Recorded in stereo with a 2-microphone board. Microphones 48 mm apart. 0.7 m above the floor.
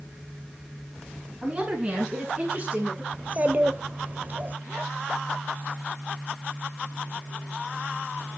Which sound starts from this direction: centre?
A woman speaking, at 1.4 s.